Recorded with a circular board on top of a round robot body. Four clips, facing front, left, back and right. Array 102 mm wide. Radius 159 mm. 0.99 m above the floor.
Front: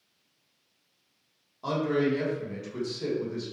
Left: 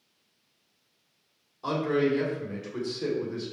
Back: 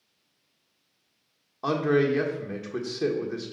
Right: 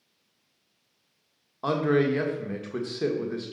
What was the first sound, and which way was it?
A man speaking, 135° right.